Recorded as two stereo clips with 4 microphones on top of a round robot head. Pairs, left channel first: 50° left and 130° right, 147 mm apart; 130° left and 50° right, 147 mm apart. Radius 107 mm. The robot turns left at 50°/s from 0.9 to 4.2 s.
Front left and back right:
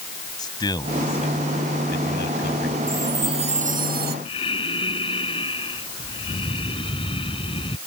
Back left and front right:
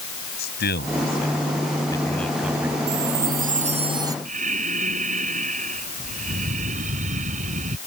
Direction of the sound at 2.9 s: 55° right.